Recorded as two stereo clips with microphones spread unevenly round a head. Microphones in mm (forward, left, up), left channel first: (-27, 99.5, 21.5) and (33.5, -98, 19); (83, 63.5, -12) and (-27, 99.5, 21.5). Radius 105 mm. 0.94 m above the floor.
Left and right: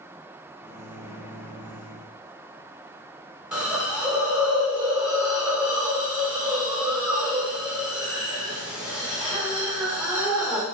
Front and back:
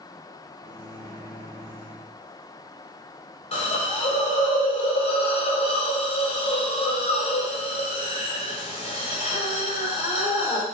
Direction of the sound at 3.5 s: 15° left.